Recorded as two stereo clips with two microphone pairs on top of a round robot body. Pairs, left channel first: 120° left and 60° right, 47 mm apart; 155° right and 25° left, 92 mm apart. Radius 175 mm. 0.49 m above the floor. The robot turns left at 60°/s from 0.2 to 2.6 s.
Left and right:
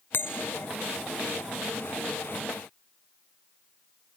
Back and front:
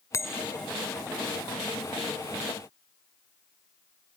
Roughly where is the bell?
Behind left.